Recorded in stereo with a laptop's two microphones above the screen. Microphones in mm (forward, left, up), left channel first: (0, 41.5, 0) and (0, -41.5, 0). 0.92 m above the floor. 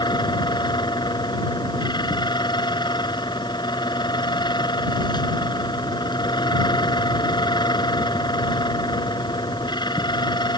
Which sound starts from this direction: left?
A fan, at 0.0 s.